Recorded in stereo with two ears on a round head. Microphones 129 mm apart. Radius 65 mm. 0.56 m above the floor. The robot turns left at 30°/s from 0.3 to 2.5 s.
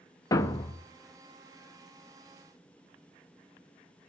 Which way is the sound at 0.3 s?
25° left (ahead or behind).